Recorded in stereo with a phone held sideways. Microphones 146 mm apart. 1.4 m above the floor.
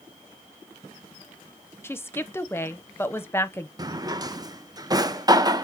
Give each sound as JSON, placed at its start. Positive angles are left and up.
{"t": 1.8, "sound": "a woman speaking", "side_deg": 15, "distance_m": 0.8}
{"t": 3.8, "sound": "a drawer", "side_deg": -25, "distance_m": 0.6}